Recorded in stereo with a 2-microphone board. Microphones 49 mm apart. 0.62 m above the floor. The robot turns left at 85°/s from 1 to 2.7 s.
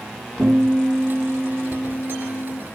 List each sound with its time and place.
0.4 s a guitar: 160° right, 5.5 m; by 2.6 s 65° left, 5.5 m